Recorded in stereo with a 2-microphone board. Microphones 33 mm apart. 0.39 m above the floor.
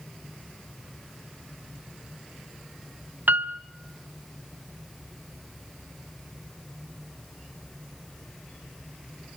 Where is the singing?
I don't hear singing.